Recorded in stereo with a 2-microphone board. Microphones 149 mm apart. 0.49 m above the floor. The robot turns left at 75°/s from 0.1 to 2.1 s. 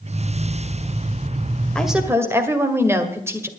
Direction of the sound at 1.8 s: 5° left (ahead or behind).